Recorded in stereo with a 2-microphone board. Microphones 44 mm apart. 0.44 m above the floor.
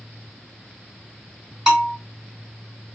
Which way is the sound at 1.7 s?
15° right (ahead or behind).